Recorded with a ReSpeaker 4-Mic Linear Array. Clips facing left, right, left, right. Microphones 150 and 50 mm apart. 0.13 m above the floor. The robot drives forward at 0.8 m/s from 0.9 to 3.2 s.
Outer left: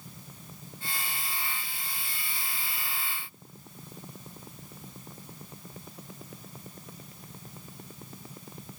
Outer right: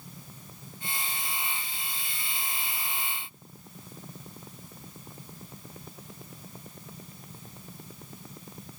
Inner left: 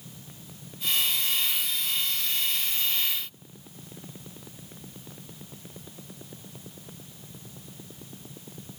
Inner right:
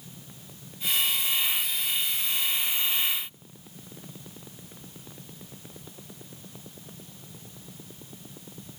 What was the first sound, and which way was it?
Only background noise.